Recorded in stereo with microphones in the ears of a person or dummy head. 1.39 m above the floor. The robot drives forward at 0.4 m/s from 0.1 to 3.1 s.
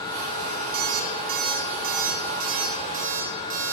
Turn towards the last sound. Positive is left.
turn(degrees=-40)  # may be behind; listen again after turning